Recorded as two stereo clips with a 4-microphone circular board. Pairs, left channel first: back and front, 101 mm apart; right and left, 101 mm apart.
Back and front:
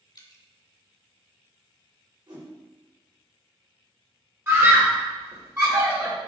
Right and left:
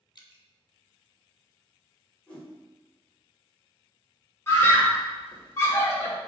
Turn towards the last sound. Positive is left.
turn(degrees=-50)